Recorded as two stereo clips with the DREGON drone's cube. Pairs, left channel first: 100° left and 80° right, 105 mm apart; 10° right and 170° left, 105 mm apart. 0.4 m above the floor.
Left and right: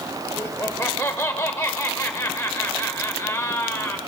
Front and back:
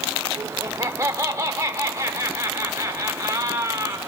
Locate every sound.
0.4 s laughter: 140° left, 0.9 m